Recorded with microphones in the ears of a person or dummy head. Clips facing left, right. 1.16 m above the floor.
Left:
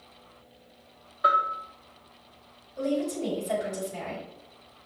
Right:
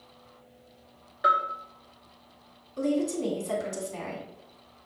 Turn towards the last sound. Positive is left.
turn(degrees=-65)  # may be behind; listen again after turning